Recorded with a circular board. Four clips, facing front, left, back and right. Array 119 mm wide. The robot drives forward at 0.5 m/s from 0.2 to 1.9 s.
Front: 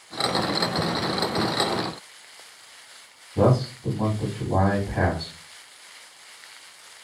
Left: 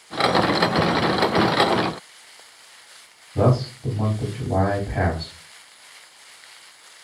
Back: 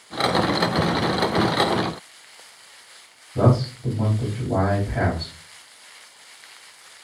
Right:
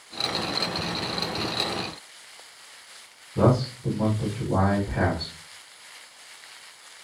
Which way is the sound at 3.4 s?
120° left.